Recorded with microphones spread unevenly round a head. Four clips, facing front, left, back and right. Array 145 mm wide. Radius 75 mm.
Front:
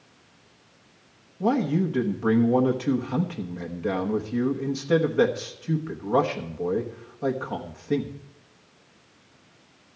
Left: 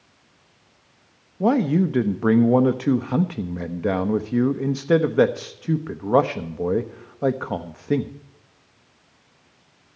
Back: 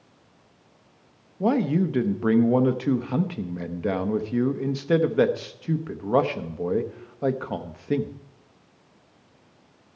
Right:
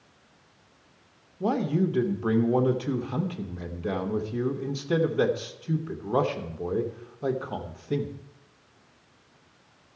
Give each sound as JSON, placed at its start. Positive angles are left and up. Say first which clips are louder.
{"t": 1.4, "sound": "a man speaking", "louder": "left 6 dB, back 1 dB", "azimuth_deg": 110, "distance_m": 1.0}